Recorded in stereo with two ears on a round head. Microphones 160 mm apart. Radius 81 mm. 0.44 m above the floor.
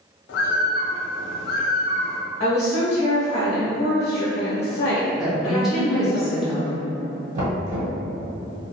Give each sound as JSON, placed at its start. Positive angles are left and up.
{"t": 0.3, "sound": "a bird", "side_deg": 60, "distance_m": 0.5}
{"t": 2.4, "sound": "a woman speaking", "side_deg": 35, "distance_m": 0.9}
{"t": 5.2, "sound": "a woman speaking", "side_deg": -5, "distance_m": 0.8}
{"t": 7.3, "sound": "knocking", "side_deg": -45, "distance_m": 1.7}